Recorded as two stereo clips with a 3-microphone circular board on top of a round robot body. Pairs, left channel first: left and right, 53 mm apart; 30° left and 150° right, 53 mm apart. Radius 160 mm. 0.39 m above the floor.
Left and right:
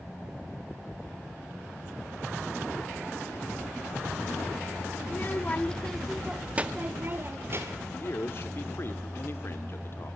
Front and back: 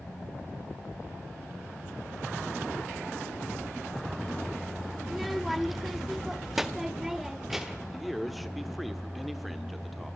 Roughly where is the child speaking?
Behind left.